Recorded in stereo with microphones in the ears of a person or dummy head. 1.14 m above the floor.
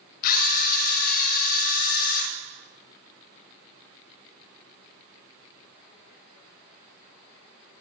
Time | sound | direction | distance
0.2 | a camera shutter | 50° left (ahead or behind) | 1.4 m